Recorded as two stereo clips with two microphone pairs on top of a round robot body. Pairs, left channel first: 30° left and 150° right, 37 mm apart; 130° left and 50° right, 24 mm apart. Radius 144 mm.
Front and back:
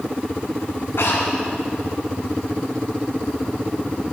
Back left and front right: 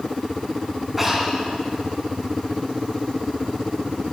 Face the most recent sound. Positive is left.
turn(degrees=40)